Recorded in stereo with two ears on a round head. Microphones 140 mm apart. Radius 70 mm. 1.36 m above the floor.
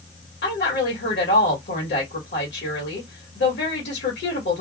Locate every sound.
0.4 s a woman speaking: 75° left (ahead or behind), 1.5 m